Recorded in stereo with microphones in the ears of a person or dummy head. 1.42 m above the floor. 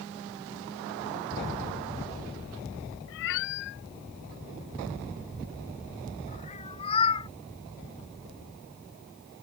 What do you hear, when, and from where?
3.1 s a cat meowing: 70° left (ahead or behind); by 7.3 s 30° left (ahead or behind)